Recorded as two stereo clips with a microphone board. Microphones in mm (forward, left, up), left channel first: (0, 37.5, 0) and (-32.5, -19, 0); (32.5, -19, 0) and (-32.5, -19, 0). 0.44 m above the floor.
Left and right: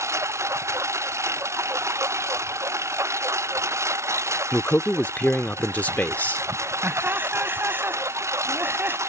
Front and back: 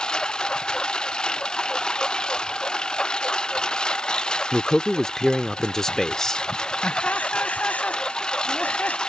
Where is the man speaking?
75° left.